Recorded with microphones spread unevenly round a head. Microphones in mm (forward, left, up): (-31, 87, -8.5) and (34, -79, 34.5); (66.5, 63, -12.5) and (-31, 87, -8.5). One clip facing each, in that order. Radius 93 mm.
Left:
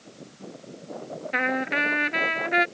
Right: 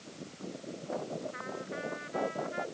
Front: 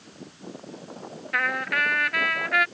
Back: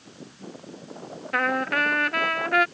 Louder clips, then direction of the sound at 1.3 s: Left 12 dB, back 3 dB; 115° left.